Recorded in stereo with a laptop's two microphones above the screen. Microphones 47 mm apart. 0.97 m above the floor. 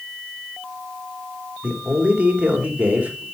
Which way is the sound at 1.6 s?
30° right (ahead or behind).